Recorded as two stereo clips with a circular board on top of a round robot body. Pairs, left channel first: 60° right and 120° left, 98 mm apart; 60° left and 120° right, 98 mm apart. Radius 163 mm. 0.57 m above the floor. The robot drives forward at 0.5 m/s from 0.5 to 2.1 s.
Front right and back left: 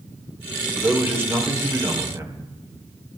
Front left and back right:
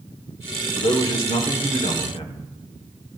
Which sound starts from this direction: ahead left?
A man speaking, at 0.8 s.